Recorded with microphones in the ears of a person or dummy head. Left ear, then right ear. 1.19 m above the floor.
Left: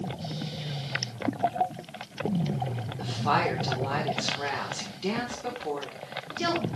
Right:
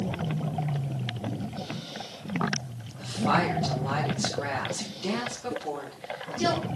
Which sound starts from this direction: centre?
A woman speaking, at 3.0 s.